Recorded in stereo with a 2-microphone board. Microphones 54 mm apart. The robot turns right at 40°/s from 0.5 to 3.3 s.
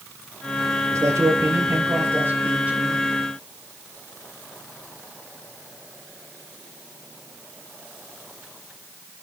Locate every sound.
0.9 s a man speaking: 105° right, 5 m; by 3.0 s 20° right, 5 m